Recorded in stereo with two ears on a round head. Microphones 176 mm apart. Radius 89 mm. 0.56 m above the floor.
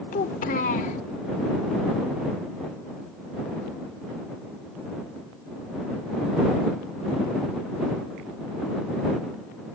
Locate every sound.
0.1 s a child speaking: 45° left (ahead or behind)